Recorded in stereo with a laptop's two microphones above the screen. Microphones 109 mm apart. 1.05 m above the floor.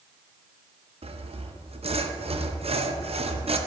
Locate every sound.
1.0 s sawing: 65° right (ahead or behind), 0.6 m